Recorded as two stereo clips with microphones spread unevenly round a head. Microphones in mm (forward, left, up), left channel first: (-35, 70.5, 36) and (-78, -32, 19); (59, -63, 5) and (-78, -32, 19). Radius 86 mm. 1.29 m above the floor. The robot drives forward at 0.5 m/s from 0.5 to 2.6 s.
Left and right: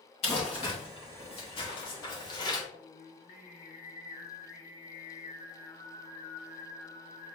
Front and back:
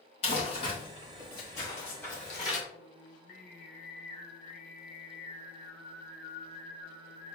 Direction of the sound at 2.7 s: 65° left.